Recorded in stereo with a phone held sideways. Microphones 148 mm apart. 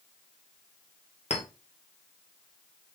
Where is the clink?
45° left (ahead or behind), 2.5 m.